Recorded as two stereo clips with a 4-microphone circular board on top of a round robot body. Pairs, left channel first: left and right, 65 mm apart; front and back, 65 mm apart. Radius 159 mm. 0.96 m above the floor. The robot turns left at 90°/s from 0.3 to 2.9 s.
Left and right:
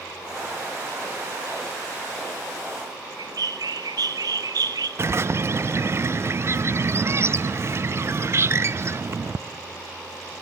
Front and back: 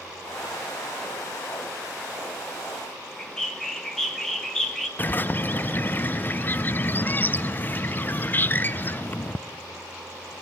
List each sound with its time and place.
3.2 s a bird: 80° right, 1.6 m
5.0 s a bird: 55° right, 0.6 m